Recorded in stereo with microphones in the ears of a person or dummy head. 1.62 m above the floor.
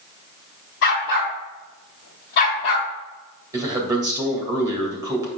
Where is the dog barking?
65° left (ahead or behind), 3 m; by 2.9 s 55° left (ahead or behind), 2 m.